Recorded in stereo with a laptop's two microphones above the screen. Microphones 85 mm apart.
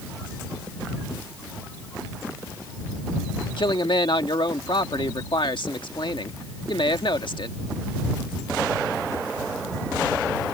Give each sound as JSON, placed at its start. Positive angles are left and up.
{"t": 3.6, "sound": "a man speaking", "side_deg": 70}